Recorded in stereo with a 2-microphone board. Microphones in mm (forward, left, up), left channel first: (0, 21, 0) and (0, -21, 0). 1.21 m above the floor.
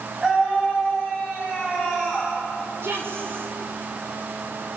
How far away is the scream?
About 8.5 m.